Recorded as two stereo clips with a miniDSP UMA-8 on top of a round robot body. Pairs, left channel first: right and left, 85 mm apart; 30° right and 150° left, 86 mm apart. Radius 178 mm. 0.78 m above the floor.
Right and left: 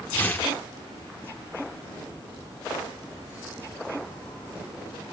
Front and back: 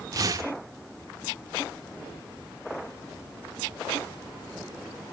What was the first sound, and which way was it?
Tearing paper, 160° right.